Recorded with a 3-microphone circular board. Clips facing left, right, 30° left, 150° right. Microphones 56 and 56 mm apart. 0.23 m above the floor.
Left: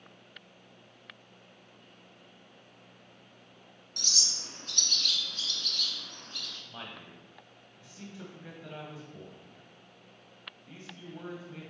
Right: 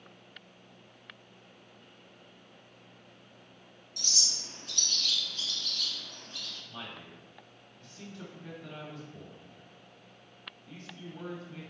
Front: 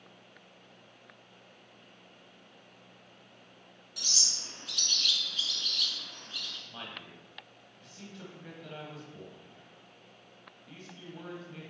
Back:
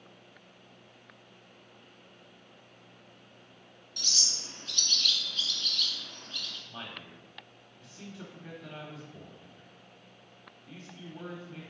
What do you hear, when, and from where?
4.0 s a bird: 115° left, 1.0 m
6.7 s a man speaking: 135° left, 1.1 m